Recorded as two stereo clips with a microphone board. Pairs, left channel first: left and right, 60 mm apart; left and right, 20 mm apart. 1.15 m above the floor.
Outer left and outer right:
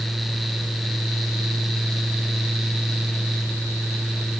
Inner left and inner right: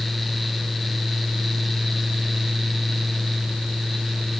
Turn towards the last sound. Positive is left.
No sound to turn to.